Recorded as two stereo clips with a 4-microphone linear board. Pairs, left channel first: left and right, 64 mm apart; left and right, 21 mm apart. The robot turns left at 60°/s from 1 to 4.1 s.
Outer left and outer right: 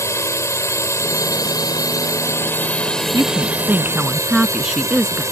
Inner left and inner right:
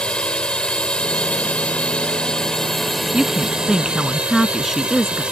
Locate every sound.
0.0 s a drone: 130° left; by 5.3 s 55° right
3.1 s a woman speaking: 115° right; by 5.2 s 170° right